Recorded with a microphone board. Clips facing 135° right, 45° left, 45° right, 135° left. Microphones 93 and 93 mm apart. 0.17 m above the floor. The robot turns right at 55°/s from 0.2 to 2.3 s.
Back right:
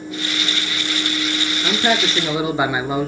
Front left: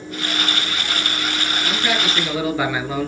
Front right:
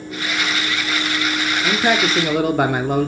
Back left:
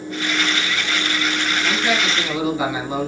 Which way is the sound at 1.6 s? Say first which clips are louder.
Back right 5 dB, front right 5 dB; 105° right.